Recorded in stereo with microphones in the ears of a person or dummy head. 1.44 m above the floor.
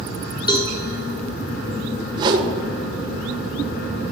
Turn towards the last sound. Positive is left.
turn(degrees=-30)  # may be behind; listen again after turning